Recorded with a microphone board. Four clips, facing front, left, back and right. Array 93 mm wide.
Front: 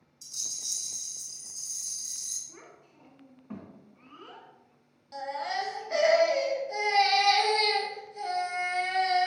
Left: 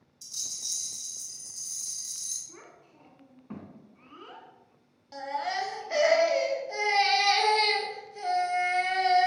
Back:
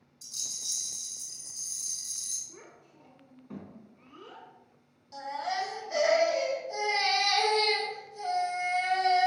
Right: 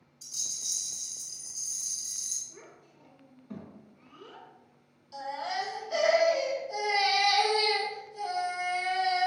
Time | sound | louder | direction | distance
0.2 | a rattle | even, even | 100° left | 1.7 m
2.5 | a child speaking | left 1 dB, even | 60° left | 1.5 m
5.1 | a baby crying | left 2 dB, front 1 dB | 65° left | 1.2 m